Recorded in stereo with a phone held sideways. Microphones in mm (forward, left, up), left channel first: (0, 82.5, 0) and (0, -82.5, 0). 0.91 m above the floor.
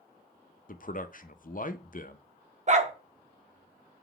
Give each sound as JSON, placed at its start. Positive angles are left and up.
{"t": 0.7, "sound": "a man speaking", "side_deg": 55, "distance_m": 0.5}
{"t": 2.7, "sound": "a dog barking", "side_deg": -45, "distance_m": 0.6}